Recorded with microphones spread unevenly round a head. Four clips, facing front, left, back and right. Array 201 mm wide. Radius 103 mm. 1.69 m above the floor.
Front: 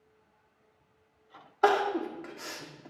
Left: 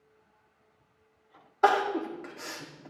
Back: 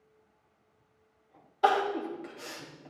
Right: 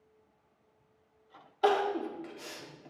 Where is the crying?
70° left, 1.5 m.